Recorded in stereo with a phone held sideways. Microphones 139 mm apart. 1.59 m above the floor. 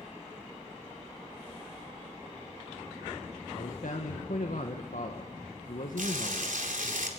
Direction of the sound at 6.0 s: 85° right.